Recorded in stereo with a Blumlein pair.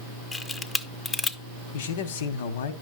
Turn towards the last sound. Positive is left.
turn(degrees=55)